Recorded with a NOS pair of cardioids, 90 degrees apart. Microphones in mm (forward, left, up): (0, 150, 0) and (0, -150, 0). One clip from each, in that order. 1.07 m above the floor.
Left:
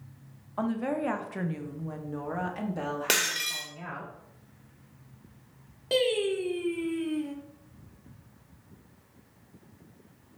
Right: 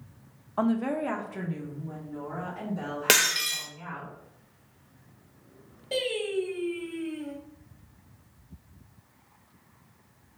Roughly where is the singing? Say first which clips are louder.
Left 3 dB; ahead left.